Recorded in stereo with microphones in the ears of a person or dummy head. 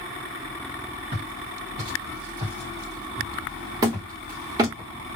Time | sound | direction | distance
1.1 | footsteps | 35° right (ahead or behind) | 1.7 m
3.8 | hammering | 25° right (ahead or behind) | 1.0 m